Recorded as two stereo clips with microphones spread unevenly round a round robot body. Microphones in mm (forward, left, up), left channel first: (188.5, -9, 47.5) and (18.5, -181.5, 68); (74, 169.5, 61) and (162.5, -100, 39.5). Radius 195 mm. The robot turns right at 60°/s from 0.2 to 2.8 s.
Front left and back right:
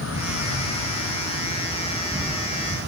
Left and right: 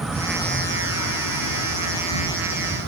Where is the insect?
15° left, 1.1 m; by 2.9 s 175° left, 1.1 m.